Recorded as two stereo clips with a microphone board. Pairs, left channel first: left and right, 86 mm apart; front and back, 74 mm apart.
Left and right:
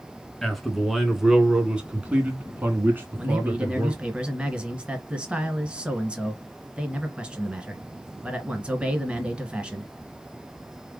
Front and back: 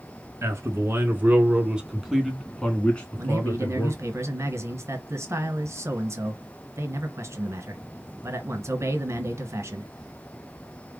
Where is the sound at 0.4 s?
175° left, 1.5 m; by 4.0 s 45° right, 1.7 m.